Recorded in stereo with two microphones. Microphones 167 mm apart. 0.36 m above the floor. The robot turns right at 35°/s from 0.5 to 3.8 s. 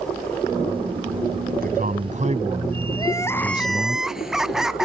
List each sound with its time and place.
1.5 s a man speaking: 75° right; by 4.0 s straight ahead
3.0 s crying: 25° left (ahead or behind); by 4.8 s 5° right (ahead or behind)